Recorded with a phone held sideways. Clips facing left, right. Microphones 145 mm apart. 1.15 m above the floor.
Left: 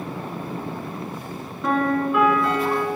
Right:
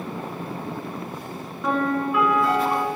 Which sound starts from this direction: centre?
A piano, at 1.6 s.